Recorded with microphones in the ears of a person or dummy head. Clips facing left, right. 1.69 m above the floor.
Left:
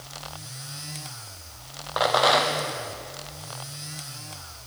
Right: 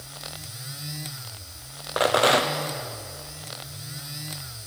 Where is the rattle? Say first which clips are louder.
Right 1 dB; 30° right (ahead or behind), 0.8 m.